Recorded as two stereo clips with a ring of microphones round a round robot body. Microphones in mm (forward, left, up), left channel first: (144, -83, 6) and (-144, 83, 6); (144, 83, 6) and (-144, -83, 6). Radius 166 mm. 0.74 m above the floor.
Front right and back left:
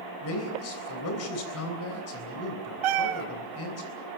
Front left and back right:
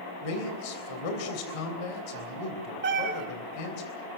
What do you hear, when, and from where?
0.2 s a man speaking: 20° left, 3.5 m
2.8 s a cat meowing: 150° left, 3 m